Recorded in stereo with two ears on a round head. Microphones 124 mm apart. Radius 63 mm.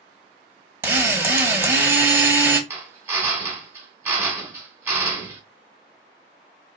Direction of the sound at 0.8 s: 15° right (ahead or behind).